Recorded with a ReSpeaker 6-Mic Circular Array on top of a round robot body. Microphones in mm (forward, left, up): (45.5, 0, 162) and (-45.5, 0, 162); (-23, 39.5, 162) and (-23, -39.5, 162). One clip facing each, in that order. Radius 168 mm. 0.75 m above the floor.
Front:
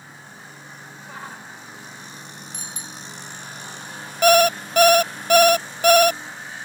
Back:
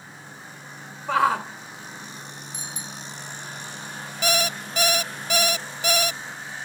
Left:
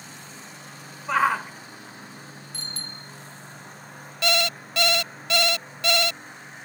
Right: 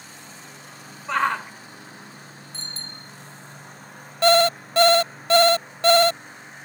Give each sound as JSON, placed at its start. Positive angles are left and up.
{"t": 1.1, "sound": "a shout", "azimuth_deg": 175}
{"t": 2.5, "sound": "a bicycle bell", "azimuth_deg": -30}
{"t": 4.2, "sound": "an alarm clock", "azimuth_deg": -35}